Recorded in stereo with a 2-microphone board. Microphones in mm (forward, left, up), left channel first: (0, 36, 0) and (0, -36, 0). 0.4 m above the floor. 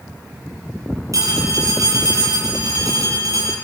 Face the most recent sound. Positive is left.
turn(degrees=-50)  # may be behind; listen again after turning